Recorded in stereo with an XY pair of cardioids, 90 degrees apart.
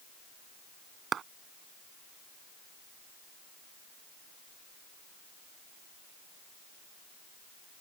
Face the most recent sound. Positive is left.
turn(degrees=-60)